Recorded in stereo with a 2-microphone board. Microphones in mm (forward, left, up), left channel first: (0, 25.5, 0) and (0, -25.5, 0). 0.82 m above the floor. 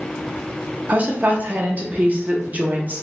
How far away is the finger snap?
No finger snap in this recording.